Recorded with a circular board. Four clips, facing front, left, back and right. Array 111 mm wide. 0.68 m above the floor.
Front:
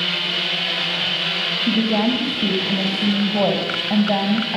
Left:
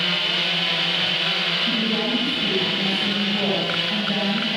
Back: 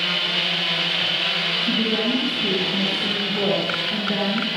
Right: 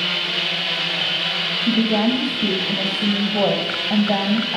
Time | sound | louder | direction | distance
1.7 | a woman speaking | right 7 dB, front 5 dB | 40° right | 3.5 m